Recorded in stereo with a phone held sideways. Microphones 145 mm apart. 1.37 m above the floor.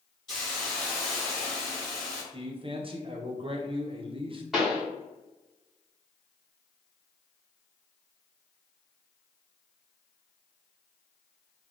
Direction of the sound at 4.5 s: Centre (ahead or behind).